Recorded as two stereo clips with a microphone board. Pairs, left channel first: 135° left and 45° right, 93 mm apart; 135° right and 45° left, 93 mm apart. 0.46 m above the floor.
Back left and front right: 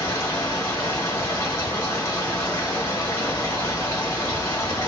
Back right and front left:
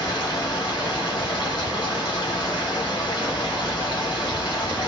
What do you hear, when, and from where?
0.0 s running water: 170° right, 1.5 m